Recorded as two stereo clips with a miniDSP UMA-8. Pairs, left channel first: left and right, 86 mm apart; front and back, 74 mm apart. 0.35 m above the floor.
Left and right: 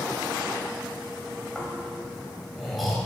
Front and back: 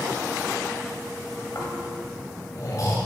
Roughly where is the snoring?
Ahead.